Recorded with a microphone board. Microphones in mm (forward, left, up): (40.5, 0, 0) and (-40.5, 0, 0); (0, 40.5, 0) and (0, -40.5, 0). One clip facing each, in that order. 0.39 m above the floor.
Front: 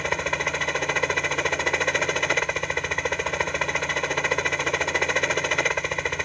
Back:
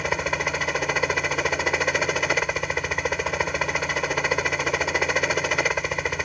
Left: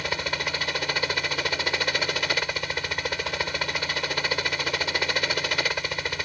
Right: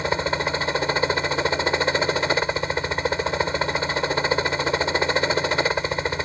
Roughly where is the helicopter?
Right.